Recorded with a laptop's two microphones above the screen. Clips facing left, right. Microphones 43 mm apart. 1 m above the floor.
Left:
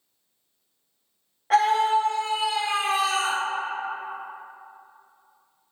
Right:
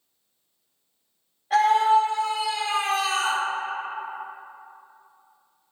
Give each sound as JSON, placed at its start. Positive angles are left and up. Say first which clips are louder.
{"t": 1.5, "sound": "a scream", "louder": "right 2 dB", "side_deg": 75, "distance_m": 0.9}